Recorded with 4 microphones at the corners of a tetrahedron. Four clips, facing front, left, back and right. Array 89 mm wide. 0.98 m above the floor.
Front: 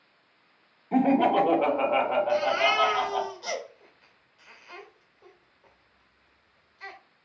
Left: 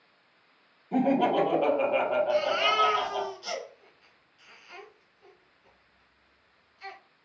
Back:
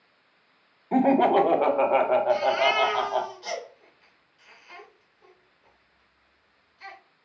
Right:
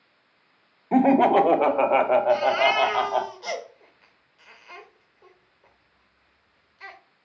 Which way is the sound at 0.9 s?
105° right.